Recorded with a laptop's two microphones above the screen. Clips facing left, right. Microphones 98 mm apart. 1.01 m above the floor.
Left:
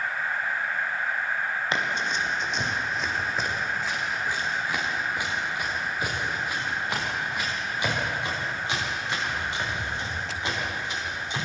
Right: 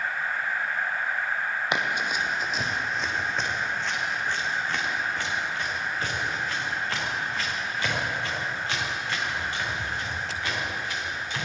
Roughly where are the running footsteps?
Centre.